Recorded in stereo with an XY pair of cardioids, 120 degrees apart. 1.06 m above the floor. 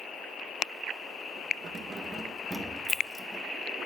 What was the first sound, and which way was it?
Keys jangling, 35° right.